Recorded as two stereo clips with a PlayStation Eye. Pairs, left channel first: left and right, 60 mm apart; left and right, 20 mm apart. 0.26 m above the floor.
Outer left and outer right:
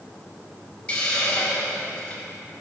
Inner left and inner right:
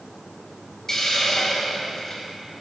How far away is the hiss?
About 3.5 m.